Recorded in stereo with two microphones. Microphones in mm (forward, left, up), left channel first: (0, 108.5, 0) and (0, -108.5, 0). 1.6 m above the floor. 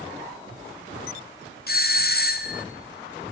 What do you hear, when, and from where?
1.7 s a doorbell: 50° left (ahead or behind), 0.7 m